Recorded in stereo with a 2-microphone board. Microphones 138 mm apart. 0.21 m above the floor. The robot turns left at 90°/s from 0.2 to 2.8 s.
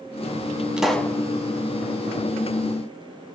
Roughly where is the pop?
Behind.